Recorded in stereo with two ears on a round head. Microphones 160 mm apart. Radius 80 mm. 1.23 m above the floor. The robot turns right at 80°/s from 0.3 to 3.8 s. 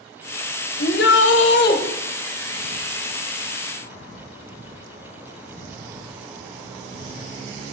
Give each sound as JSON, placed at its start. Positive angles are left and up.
{"t": 0.8, "sound": "a shout", "azimuth_deg": 45, "distance_m": 1.5}